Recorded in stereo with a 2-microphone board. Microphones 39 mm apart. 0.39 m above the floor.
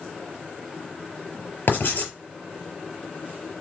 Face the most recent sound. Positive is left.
turn(degrees=55)  # may be behind; listen again after turning